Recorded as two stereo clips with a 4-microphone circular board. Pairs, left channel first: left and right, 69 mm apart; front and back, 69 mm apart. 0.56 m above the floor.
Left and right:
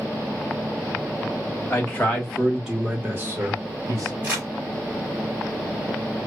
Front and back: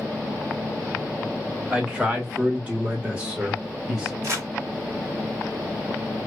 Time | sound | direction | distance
1.7 | a man speaking | 120° left | 1.0 m
4.2 | crumpling | 155° right | 1.7 m